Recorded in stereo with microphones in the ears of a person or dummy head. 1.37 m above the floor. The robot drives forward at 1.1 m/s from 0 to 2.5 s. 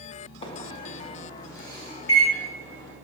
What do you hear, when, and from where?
0.4 s a microwave: 30° left (ahead or behind), 1.6 m; by 2.9 s 10° left (ahead or behind), 4 m